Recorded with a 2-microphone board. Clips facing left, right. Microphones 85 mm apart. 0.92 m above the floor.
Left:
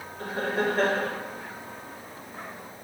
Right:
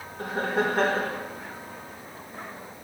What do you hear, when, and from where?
0.2 s laughter: 75° right (ahead or behind), 3 m